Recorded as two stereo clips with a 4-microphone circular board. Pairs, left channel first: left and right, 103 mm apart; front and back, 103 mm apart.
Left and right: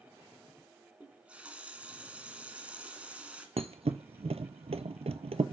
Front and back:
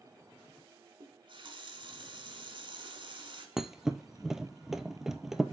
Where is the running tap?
165° right, 1.3 m.